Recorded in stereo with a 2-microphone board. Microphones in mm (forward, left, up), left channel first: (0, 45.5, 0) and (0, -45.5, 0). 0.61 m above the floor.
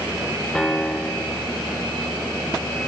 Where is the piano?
10° left (ahead or behind), 2 m.